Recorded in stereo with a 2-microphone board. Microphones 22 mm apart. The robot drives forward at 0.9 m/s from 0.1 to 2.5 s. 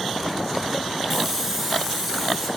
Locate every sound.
1.1 s a hiss: 10° right (ahead or behind), 1.4 m; by 2.5 s 5° right (ahead or behind), 2.5 m